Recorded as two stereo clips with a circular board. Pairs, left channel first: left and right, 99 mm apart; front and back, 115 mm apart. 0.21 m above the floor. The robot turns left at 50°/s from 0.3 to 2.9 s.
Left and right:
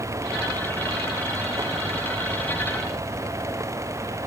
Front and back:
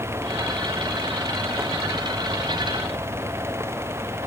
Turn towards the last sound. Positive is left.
No sound to turn to.